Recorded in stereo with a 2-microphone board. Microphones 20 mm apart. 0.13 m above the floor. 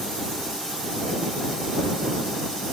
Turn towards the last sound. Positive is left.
No sound to turn to.